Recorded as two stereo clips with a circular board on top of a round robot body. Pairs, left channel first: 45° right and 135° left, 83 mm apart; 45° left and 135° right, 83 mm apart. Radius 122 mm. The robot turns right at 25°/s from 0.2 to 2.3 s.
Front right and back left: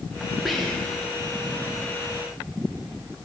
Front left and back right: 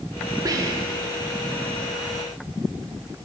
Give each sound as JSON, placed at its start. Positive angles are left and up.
{"t": 0.5, "sound": "whispering", "azimuth_deg": -140, "distance_m": 1.3}